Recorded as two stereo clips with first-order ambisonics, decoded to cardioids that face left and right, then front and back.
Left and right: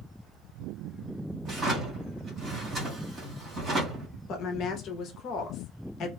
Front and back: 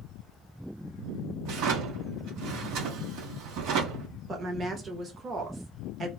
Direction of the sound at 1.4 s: 155° right.